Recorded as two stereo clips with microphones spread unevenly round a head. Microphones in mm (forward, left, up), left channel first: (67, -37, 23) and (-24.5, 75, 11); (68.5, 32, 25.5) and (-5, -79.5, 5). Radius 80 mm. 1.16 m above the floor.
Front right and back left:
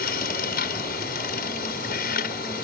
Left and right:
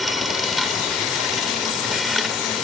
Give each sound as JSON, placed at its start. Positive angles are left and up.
{"t": 0.0, "sound": "a machine running", "azimuth_deg": -35}